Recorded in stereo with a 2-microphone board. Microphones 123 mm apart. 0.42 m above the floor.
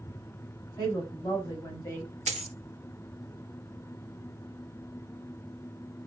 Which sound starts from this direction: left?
A woman speaking, at 0.8 s.